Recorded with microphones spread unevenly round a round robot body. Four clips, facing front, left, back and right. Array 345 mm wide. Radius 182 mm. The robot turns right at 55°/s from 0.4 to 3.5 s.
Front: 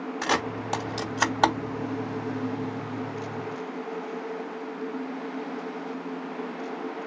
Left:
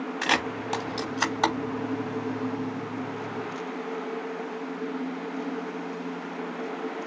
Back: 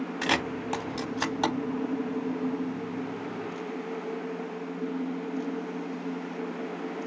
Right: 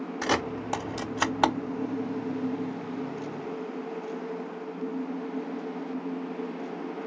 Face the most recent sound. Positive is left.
turn(degrees=30)